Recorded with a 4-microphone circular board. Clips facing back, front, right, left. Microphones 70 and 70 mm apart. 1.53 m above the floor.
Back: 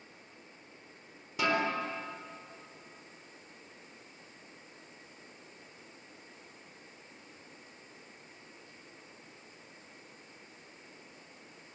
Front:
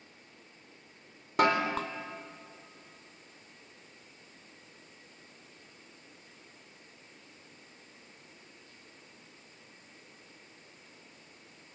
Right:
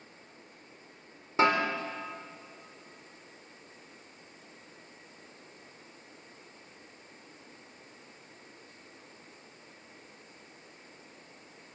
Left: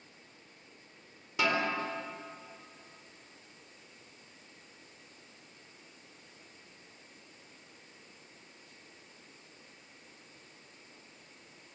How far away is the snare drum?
About 4 m.